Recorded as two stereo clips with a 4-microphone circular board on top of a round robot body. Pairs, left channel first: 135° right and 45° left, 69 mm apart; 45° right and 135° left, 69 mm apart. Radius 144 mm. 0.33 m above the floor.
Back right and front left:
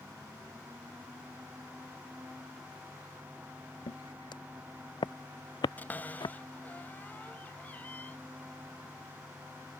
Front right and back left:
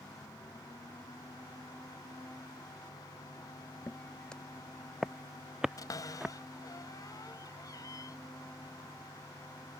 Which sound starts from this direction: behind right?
Footsteps, at 3.9 s.